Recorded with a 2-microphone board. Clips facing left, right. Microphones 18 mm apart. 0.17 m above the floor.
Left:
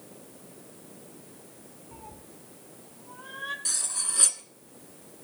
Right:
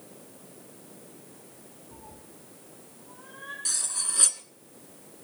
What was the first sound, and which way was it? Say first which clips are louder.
A cat meowing: left 3 dB; 75° left (ahead or behind).